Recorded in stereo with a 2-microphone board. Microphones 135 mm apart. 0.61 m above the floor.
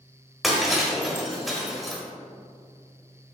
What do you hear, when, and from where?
0.4 s breaking glass: centre (ahead or behind), 1.2 m